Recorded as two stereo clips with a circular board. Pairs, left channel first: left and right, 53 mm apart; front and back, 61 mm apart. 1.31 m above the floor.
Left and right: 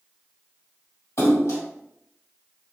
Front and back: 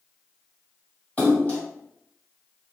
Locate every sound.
1.2 s a splash: 65° left, 1.6 m